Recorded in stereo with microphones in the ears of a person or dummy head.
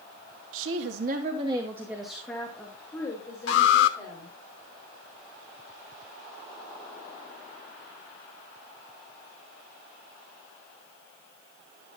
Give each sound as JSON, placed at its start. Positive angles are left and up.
{"t": 0.5, "sound": "a woman speaking", "side_deg": -85, "distance_m": 1.3}
{"t": 3.5, "sound": "an alarm", "side_deg": 65, "distance_m": 1.3}